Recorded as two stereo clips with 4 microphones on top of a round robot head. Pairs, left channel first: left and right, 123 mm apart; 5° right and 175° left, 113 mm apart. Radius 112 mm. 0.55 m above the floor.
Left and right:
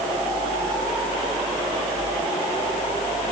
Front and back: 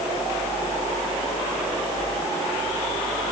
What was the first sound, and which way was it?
Only background noise.